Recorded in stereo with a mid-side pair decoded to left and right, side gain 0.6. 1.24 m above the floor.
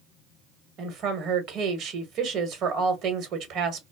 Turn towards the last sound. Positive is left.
turn(degrees=-60)